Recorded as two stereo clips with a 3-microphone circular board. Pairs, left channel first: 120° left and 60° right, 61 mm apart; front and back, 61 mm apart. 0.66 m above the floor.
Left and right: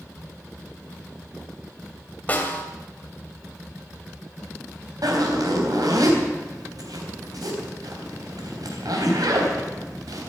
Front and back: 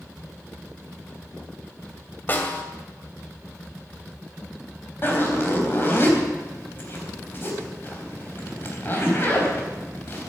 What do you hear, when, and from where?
2.3 s a snare drum: 55° left, 2.5 m
5.0 s a zipper: 55° right, 3.5 m